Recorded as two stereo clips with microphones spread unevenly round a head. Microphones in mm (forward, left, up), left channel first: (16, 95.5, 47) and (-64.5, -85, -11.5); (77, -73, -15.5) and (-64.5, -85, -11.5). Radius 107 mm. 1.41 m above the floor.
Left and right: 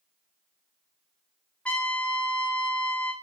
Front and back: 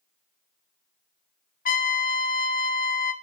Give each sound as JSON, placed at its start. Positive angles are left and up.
{"t": 1.6, "sound": "a trumpet", "azimuth_deg": -15, "distance_m": 0.8}